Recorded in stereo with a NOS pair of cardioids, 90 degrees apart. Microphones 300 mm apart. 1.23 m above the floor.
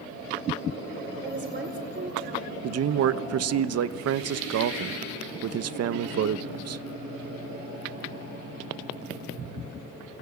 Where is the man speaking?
55° right, 1.0 m.